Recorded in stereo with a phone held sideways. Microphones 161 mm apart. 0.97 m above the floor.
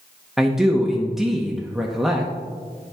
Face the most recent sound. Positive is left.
turn(degrees=0)  # may be behind; listen again after turning